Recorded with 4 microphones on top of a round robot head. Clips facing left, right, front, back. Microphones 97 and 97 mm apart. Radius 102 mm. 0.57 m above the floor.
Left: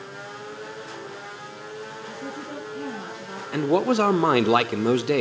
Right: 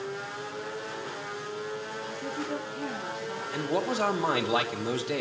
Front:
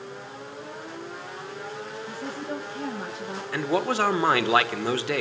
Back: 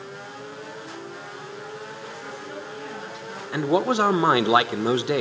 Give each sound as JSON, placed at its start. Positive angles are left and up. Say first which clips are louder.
{"t": 2.1, "sound": "a woman speaking", "louder": "right 3 dB, front 3 dB", "azimuth_deg": 50, "distance_m": 10.0}
{"t": 3.5, "sound": "a man speaking", "louder": "left 9 dB, back 4 dB", "azimuth_deg": 110, "distance_m": 1.6}